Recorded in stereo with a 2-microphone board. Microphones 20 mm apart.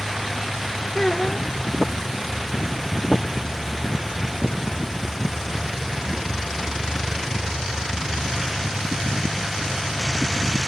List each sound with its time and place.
0.9 s a child speaking: 20° left (ahead or behind), 0.7 m